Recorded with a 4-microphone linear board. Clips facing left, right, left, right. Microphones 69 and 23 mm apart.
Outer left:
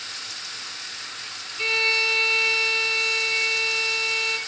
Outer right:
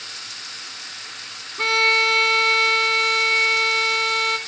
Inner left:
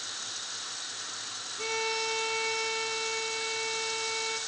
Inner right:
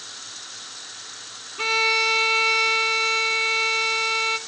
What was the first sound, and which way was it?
A violin, 55° right (ahead or behind).